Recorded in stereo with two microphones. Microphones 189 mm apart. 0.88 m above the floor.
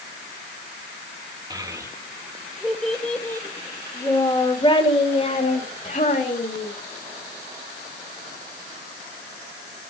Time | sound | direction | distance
1.5 | a child speaking | 20° right (ahead or behind) | 2.5 m